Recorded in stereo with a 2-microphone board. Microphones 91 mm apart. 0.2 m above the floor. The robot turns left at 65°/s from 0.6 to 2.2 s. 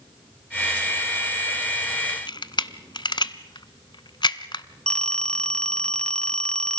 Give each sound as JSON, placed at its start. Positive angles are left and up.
{"t": 2.1, "sound": "a camera shutter", "side_deg": 55, "distance_m": 0.8}
{"t": 4.9, "sound": "a phone ringing", "side_deg": 10, "distance_m": 0.7}